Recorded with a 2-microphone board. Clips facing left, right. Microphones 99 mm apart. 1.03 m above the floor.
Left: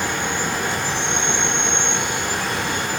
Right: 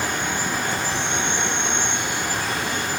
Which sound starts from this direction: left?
An insect, at 0.0 s.